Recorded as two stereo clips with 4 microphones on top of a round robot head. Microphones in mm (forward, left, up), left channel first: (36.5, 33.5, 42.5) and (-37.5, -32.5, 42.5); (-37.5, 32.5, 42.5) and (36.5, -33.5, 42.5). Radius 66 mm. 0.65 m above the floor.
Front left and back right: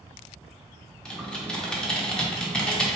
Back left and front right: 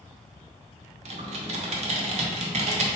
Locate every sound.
1.1 s typing on a keyboard: 40° right, 0.8 m